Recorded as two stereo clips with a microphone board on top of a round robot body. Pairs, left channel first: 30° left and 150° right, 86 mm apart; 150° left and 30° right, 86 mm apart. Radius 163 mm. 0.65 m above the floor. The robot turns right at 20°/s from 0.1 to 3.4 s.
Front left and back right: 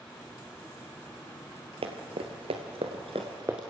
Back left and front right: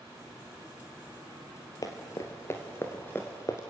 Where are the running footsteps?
160° right, 1.3 m; by 3.6 s 130° left, 0.6 m.